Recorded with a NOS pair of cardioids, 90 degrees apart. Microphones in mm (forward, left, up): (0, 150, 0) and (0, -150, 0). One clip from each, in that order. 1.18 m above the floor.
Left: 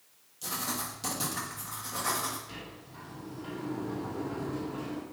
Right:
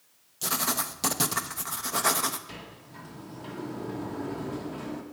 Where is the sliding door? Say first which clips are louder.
Right 1 dB; 35° right, 2.5 m.